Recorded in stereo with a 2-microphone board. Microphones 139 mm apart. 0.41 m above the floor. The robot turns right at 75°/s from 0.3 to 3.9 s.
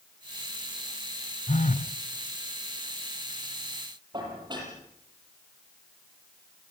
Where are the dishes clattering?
30° right (ahead or behind), 8.5 m.